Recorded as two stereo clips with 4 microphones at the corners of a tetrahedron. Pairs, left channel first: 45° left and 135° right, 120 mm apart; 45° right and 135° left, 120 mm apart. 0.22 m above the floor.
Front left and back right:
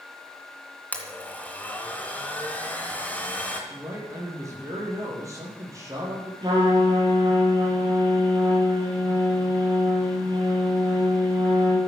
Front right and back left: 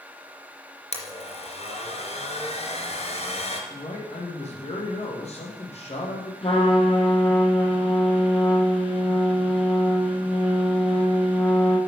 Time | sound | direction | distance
0.9 | a blender | 30° right | 2.5 m
3.7 | a man speaking | 70° right | 6.5 m
6.4 | a trumpet | 85° right | 5.5 m